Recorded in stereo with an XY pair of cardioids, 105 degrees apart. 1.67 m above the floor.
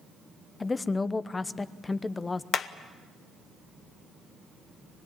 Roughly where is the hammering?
Ahead left.